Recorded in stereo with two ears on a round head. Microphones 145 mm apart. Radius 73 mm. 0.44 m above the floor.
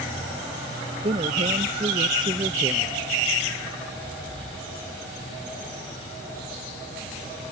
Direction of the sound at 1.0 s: 40° right (ahead or behind).